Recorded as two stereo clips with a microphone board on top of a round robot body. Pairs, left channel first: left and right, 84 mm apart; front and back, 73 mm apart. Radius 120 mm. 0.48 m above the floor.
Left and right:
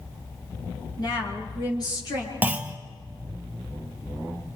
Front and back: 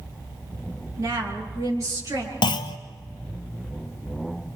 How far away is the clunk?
About 0.8 m.